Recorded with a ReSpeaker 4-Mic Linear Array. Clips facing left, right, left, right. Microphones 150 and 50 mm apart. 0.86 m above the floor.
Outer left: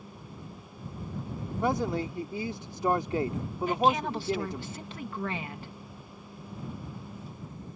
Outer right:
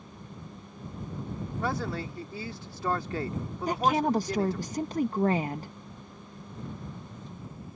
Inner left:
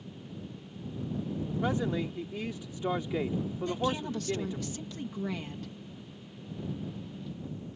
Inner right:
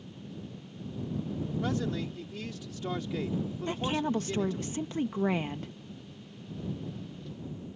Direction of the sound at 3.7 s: 40° right (ahead or behind).